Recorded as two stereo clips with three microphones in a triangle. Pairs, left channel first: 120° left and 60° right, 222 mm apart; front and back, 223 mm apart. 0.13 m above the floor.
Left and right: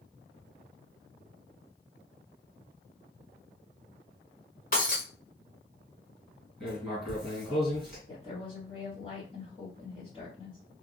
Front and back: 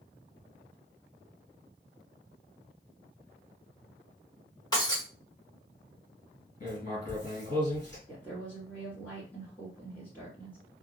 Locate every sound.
4.7 s breaking glass: 70° left, 1.4 m
6.6 s writing: 25° left, 2 m
8.1 s a woman speaking: 75° left, 1.8 m